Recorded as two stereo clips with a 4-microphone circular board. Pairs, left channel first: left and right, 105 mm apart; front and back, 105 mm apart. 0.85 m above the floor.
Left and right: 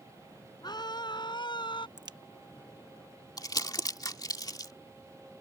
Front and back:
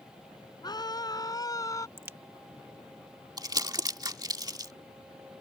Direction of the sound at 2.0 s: 120° right.